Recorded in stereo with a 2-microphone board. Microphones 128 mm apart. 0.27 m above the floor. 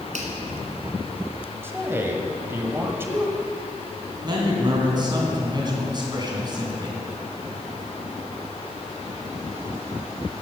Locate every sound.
0.1 s a finger snap: 70° right (ahead or behind), 2 m
1.6 s a man speaking: 20° right (ahead or behind), 1.3 m
4.2 s a man speaking: 35° right (ahead or behind), 2.5 m